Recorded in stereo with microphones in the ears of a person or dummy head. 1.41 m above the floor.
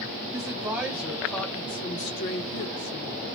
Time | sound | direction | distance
0.3 | a woman speaking | 20° right (ahead or behind) | 1.5 m